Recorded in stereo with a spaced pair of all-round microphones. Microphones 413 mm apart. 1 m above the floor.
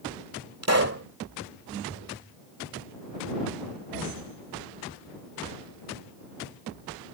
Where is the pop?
40° right (ahead or behind).